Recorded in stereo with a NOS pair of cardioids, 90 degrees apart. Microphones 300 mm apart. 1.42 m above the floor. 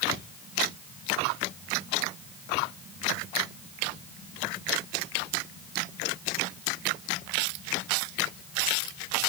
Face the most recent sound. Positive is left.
No sound to turn to.